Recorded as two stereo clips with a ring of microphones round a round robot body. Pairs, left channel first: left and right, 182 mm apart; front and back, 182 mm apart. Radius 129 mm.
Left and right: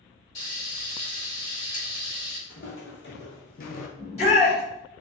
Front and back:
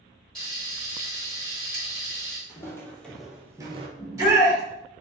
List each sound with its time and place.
0.3 s frying: 85° left, 1.8 m
2.5 s footsteps: 75° left, 1.2 m; by 3.9 s 130° left, 0.6 m
4.0 s a shout: 115° left, 1.5 m